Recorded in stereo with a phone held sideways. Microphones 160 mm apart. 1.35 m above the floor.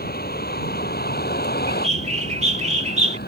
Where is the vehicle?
75° left (ahead or behind); by 3.3 s 85° left.